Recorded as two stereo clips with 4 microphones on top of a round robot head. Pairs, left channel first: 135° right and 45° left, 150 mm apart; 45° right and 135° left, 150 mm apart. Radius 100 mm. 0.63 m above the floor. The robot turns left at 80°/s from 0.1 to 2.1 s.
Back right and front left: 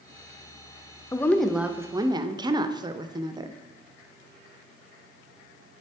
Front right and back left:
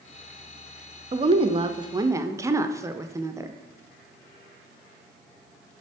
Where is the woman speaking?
160° left, 0.6 m; by 3.5 s 80° left, 0.6 m.